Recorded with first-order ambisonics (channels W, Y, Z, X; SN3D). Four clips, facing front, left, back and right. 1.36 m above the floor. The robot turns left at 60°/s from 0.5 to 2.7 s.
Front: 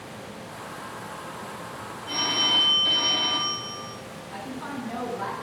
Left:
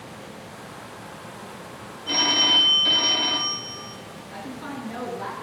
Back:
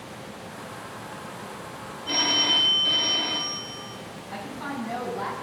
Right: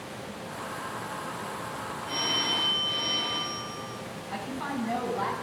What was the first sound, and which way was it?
A phone ringing, 125° left.